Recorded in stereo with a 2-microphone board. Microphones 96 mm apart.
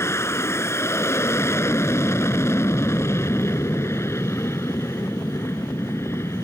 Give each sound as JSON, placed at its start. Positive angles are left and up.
{"t": 0.0, "sound": "an aircraft", "side_deg": 25}